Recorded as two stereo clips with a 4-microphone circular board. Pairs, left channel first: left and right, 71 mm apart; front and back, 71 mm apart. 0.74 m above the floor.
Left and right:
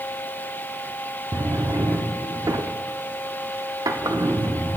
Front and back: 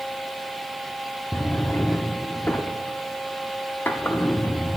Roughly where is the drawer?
Ahead right.